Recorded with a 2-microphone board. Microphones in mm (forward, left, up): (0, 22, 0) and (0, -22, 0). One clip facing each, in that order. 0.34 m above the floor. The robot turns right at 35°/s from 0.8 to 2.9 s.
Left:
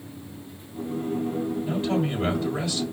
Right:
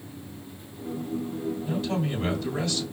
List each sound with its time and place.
1.7 s a man speaking: 125° left, 1.9 m; by 2.8 s 165° left, 1.9 m